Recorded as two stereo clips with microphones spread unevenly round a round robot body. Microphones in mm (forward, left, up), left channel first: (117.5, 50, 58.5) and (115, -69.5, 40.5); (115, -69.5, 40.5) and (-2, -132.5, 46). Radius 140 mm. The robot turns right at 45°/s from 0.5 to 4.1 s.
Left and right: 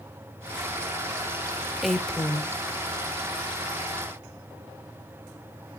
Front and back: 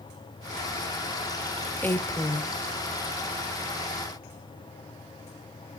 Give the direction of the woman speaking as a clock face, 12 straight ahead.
1 o'clock.